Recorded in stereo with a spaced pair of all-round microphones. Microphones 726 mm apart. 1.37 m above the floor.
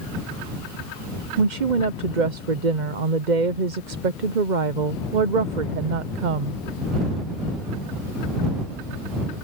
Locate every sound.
1.4 s a woman speaking: 80° right